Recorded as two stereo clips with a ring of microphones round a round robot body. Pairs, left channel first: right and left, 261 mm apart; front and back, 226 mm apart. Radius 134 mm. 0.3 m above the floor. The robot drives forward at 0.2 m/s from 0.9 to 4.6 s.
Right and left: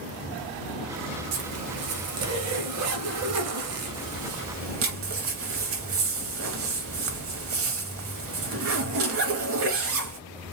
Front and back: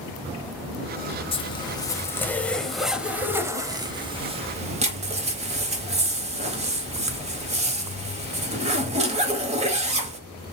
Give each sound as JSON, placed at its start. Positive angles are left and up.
{"t": 1.3, "sound": "a zipper", "azimuth_deg": 65, "distance_m": 0.8}